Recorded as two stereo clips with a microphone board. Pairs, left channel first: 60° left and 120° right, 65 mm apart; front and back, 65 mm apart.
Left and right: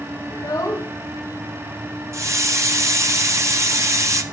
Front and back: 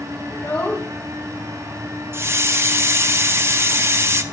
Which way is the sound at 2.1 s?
140° right.